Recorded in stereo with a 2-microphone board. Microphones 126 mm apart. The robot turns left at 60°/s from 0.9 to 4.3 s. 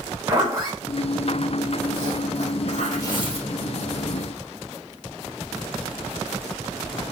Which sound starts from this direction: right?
A zipper, at 0.3 s.